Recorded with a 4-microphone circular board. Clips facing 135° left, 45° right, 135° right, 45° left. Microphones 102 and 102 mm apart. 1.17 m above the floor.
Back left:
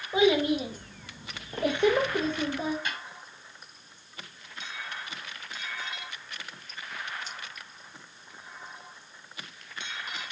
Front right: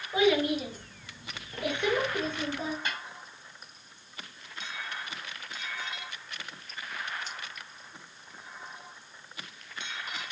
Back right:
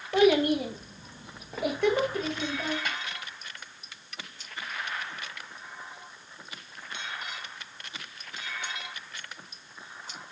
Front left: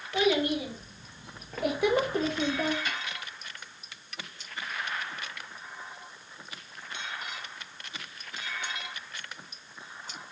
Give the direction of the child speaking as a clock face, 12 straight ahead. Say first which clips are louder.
Back left 2 dB, back right 5 dB; 5 o'clock.